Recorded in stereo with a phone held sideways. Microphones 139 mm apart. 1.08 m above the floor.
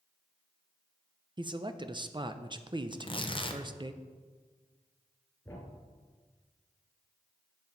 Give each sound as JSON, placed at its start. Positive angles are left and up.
{"t": 1.4, "sound": "a man speaking", "side_deg": -35, "distance_m": 0.5}
{"t": 2.9, "sound": "tearing paper", "side_deg": 35, "distance_m": 0.8}
{"t": 5.5, "sound": "a thud", "side_deg": 15, "distance_m": 3.0}